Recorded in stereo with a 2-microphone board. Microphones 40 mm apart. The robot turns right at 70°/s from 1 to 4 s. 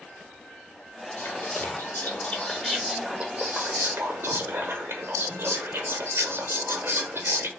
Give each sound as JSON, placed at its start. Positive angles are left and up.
{"t": 1.2, "sound": "whispering", "azimuth_deg": 80, "distance_m": 0.5}